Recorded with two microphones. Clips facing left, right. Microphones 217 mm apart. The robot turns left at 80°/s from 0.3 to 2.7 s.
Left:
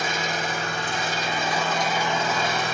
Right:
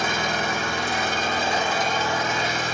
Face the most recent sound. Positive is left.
turn(degrees=110)